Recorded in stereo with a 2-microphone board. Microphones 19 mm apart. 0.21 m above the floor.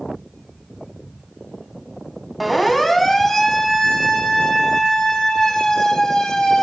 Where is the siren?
5° right (ahead or behind), 2.5 m; by 6.6 s 25° left (ahead or behind), 6.5 m.